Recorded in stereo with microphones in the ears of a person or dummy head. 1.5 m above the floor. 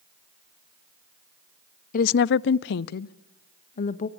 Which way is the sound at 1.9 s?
50° left (ahead or behind).